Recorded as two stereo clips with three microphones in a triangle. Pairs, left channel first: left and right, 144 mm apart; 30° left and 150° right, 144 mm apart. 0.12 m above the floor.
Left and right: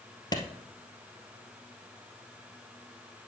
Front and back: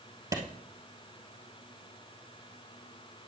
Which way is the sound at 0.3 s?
150° left.